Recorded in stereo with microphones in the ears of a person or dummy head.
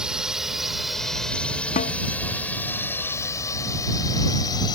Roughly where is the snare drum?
Left.